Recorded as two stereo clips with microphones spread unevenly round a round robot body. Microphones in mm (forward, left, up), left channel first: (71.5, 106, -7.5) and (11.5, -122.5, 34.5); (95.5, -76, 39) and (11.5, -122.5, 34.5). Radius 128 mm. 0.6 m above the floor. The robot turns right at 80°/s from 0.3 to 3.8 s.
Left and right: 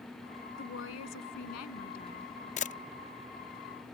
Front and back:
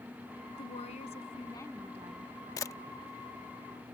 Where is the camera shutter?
60° left; by 2.8 s 75° left.